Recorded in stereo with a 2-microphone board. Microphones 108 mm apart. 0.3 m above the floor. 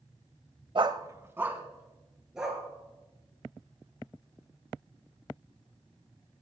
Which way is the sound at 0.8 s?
50° right (ahead or behind).